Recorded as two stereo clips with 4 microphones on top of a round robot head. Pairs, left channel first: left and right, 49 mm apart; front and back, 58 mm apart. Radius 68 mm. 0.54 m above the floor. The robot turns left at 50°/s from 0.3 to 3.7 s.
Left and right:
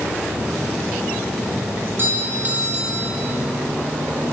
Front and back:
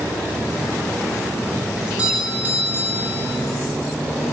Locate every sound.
1.8 s a doorbell: 105° right, 2.5 m; by 3.4 s 175° left, 2.5 m